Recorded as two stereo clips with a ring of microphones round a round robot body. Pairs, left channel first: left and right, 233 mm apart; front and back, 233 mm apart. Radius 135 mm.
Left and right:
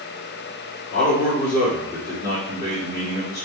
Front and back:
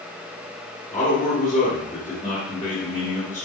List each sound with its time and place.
0.9 s a man speaking: 25° left, 1.5 m